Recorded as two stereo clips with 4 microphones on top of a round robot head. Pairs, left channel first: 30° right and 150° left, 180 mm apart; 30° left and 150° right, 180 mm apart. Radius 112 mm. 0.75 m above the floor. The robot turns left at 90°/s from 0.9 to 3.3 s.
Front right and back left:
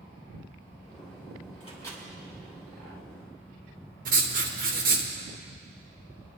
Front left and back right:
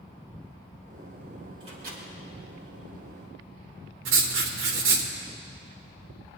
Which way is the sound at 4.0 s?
165° right.